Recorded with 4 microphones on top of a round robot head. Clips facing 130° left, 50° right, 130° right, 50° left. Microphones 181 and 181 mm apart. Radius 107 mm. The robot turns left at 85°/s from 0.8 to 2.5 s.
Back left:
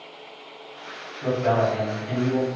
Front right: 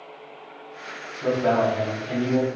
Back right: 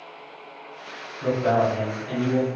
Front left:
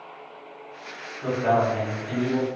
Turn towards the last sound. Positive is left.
turn(degrees=105)